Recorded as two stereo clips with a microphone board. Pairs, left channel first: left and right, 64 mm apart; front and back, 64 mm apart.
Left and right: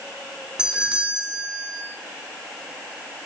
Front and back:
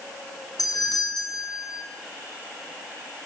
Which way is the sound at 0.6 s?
15° right.